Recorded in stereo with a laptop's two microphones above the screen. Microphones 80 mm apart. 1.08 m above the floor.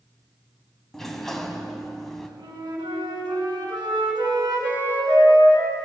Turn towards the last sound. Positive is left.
turn(degrees=-65)  # may be behind; listen again after turning